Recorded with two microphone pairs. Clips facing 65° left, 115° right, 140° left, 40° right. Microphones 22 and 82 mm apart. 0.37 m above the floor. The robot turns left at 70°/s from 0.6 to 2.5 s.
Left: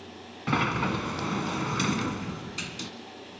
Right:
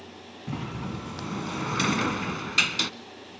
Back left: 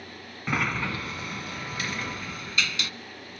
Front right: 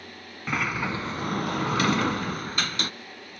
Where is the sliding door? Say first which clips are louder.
Left 9 dB, even; 45° left, 0.6 m; by 2.9 s 85° right, 0.6 m.